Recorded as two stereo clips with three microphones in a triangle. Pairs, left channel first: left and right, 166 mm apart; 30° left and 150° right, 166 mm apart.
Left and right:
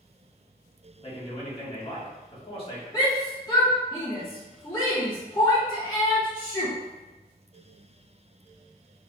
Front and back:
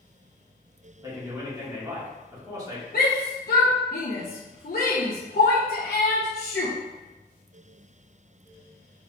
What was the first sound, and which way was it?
A man speaking, 145° left.